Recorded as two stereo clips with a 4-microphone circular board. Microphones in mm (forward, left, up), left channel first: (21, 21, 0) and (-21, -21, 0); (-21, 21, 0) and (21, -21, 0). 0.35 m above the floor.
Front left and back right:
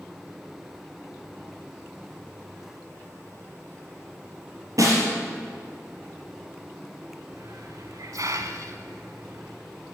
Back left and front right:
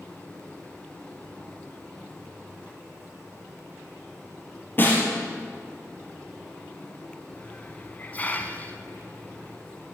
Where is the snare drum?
165° right, 3 m.